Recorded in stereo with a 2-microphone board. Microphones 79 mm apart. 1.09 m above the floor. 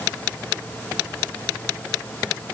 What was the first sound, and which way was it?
Only background noise.